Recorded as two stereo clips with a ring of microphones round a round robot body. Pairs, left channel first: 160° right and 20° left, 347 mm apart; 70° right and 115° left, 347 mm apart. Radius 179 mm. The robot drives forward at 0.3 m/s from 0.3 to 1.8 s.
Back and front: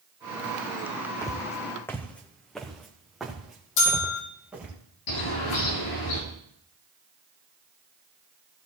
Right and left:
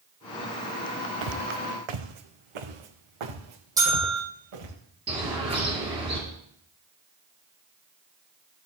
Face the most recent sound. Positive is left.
turn(degrees=-175)